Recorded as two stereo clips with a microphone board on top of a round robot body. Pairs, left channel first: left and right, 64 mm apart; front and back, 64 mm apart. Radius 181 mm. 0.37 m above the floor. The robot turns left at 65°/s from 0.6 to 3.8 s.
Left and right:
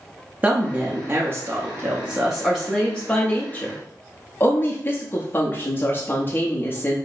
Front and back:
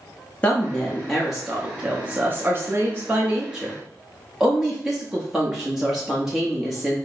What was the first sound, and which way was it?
A woman speaking, 50° right.